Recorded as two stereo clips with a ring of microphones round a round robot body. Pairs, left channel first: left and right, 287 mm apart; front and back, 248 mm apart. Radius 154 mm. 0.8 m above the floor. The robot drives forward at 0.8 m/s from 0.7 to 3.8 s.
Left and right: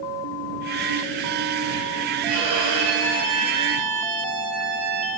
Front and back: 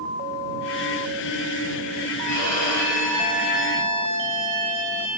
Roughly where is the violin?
Ahead right.